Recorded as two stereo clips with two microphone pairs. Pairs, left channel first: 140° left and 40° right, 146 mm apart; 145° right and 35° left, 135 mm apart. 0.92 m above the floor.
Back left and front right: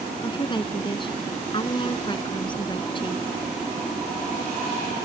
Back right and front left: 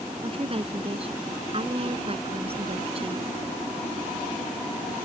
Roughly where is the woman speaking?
Left.